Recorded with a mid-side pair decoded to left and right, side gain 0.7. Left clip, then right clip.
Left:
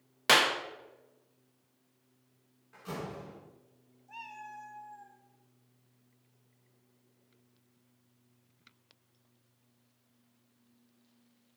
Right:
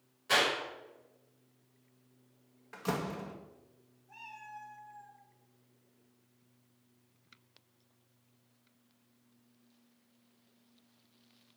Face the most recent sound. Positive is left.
turn(degrees=45)